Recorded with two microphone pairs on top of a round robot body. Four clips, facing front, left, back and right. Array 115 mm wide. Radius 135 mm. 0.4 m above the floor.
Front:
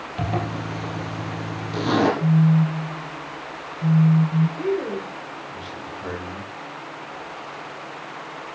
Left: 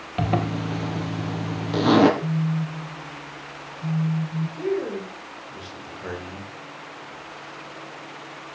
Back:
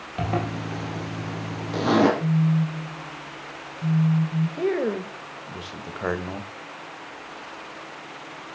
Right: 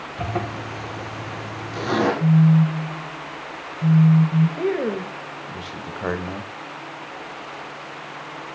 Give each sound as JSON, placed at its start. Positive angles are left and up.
{"t": 0.2, "sound": "a zipper", "azimuth_deg": 110, "distance_m": 3.5}
{"t": 2.2, "sound": "a phone buzzing", "azimuth_deg": -65, "distance_m": 2.0}
{"t": 4.6, "sound": "a man speaking", "azimuth_deg": -135, "distance_m": 2.0}